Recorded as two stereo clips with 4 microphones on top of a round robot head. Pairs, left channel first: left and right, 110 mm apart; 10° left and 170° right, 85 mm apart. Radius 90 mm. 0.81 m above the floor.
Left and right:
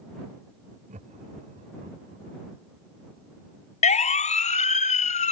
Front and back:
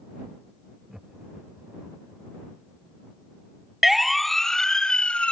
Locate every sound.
0.9 s laughter: 80° right; by 2.2 s 90° right
3.8 s a siren: 105° left; by 5.3 s 90° left